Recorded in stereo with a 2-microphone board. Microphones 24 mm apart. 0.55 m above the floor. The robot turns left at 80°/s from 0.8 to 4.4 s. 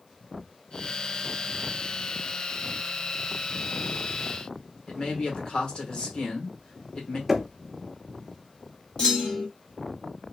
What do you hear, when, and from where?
4.9 s a man speaking: 45° left (ahead or behind), 1.3 m
7.3 s knocking: 5° right (ahead or behind), 0.5 m
9.0 s a clunk: 45° left (ahead or behind), 1.6 m